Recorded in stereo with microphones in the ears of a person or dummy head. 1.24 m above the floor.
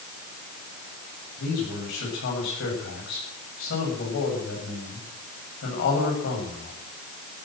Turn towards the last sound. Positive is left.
turn(degrees=65)  # may be behind; listen again after turning